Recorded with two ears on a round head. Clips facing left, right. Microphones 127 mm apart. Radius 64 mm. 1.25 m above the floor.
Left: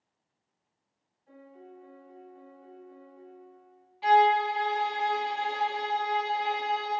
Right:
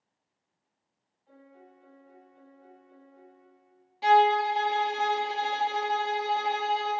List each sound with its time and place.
1.3 s a piano: centre (ahead or behind), 2.5 m
4.0 s a violin: 45° right (ahead or behind), 0.9 m